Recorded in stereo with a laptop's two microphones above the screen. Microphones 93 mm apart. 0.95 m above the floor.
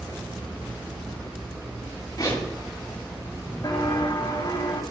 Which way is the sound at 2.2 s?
40° left (ahead or behind).